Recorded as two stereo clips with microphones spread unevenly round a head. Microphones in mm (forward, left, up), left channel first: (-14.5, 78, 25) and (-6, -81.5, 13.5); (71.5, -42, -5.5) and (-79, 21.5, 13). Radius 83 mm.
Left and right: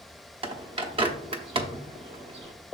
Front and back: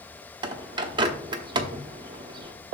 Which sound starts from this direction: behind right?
A bird, at 0.4 s.